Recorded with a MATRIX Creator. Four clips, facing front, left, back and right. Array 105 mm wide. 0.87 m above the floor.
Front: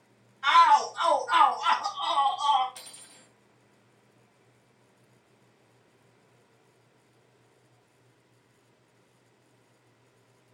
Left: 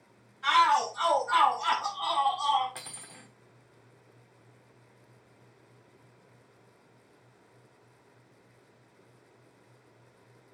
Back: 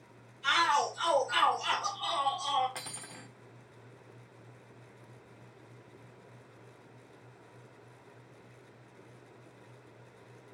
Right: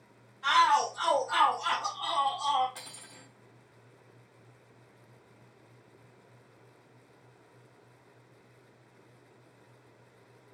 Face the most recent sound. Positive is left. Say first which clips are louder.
# left 2 dB, back 7 dB
turn(degrees=155)